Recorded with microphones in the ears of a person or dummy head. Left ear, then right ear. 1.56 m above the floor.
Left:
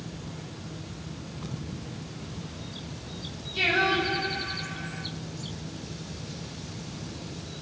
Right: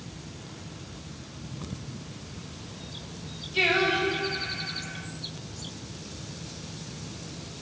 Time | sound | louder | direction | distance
3.5 | singing | even | 50° right (ahead or behind) | 2.5 m